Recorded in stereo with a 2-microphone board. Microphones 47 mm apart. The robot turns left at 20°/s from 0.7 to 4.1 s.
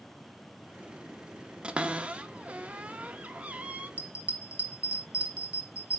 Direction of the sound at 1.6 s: 20° right (ahead or behind).